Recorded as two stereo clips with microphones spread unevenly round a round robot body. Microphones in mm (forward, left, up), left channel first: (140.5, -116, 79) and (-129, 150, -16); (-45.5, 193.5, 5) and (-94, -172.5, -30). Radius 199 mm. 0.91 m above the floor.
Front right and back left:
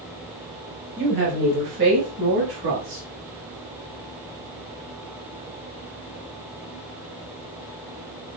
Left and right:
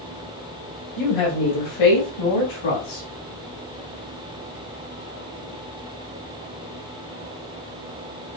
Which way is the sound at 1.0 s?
75° left.